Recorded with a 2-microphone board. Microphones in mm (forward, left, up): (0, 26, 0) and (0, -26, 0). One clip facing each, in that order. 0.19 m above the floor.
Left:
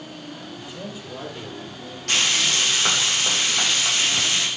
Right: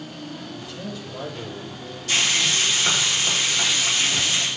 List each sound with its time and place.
0.5 s a man speaking: 20° left (ahead or behind), 6 m; by 2.0 s 30° left (ahead or behind), 5 m
2.1 s frying: 55° left (ahead or behind), 9.5 m